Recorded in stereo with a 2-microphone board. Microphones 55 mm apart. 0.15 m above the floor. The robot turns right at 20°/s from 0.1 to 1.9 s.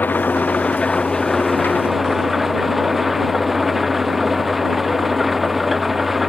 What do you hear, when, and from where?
0.0 s an engine running: 145° left; by 6.3 s 175° right